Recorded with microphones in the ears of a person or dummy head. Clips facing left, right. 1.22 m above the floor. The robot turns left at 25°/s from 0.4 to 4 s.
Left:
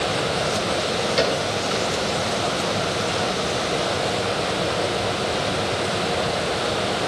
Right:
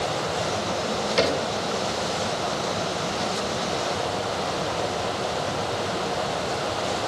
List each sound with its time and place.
1.2 s a cupboard door: centre (ahead or behind), 3 m; by 1.4 s 10° left (ahead or behind), 3 m